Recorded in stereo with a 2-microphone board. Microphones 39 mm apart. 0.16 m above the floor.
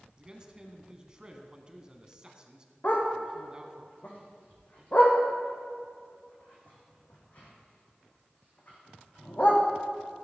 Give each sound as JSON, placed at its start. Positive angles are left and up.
{"t": 0.2, "sound": "a man speaking", "side_deg": -20, "distance_m": 1.0}
{"t": 2.8, "sound": "a dog barking", "side_deg": 45, "distance_m": 2.0}